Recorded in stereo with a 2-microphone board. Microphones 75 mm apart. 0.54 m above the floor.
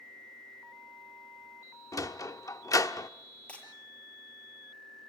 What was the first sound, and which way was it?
A sliding door, 50° left (ahead or behind).